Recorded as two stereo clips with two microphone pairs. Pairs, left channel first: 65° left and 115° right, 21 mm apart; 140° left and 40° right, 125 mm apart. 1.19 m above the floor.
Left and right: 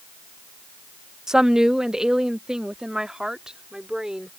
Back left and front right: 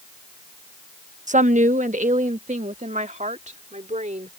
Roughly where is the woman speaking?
Ahead right.